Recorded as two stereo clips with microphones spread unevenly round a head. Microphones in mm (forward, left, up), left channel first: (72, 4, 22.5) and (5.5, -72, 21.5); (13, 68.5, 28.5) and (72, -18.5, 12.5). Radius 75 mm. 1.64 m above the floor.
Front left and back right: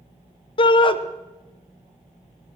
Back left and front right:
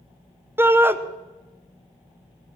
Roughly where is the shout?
Ahead.